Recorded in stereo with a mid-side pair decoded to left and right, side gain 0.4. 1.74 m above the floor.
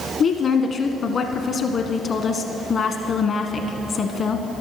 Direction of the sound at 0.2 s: 65° left.